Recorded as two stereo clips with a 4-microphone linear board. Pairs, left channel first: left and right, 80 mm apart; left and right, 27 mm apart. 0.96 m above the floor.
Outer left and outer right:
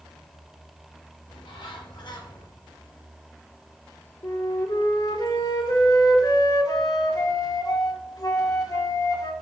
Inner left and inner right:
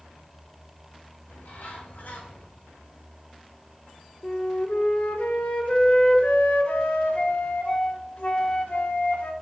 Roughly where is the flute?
Left.